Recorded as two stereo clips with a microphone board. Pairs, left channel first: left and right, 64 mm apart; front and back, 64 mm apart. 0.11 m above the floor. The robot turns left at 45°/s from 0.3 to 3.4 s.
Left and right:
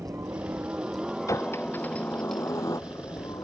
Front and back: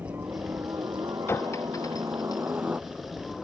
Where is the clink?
50° left; by 2.6 s 5° right.